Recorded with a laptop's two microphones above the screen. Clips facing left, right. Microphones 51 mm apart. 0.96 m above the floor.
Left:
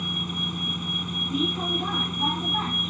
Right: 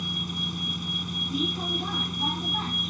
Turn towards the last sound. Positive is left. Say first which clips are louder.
# left 2 dB
turn(degrees=15)  # may be behind; listen again after turning